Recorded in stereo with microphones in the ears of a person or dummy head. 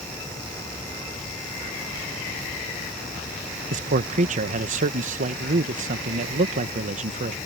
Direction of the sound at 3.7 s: 40° right (ahead or behind).